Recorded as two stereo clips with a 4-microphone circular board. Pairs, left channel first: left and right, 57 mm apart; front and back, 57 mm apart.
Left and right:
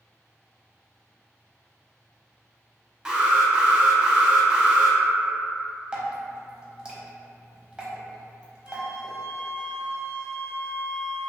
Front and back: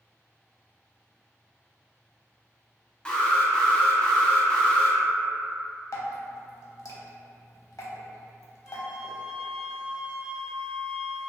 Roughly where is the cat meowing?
I don't hear a cat meowing.